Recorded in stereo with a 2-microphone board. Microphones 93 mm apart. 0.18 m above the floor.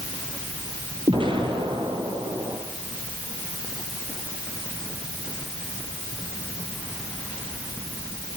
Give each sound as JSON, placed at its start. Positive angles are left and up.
{"t": 1.1, "sound": "an explosion", "side_deg": -65, "distance_m": 5.0}